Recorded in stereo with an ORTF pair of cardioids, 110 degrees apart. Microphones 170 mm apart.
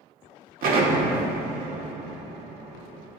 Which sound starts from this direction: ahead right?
An explosion, at 0.6 s.